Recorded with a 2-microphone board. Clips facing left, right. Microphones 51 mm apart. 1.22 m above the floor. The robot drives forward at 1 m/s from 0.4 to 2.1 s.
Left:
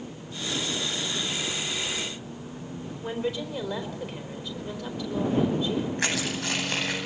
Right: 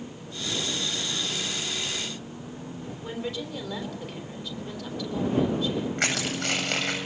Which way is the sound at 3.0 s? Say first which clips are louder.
Left 4 dB; 10° left (ahead or behind).